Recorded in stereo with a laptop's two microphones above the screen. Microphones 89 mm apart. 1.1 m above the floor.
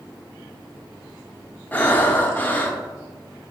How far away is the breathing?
About 0.7 m.